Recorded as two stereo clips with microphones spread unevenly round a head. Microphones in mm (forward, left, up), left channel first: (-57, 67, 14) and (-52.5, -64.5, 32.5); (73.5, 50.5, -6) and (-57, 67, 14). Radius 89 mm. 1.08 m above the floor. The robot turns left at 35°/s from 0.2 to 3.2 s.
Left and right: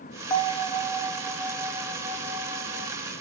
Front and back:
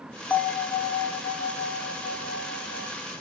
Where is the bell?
55° left, 0.5 m; by 2.9 s 35° right, 0.5 m.